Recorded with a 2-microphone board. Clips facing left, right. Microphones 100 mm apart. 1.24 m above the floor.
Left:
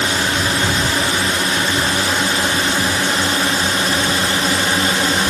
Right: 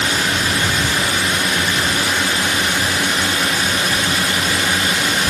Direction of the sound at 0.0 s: 30° left (ahead or behind).